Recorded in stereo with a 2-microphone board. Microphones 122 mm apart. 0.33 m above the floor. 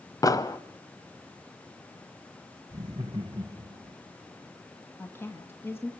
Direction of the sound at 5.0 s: 20° left (ahead or behind).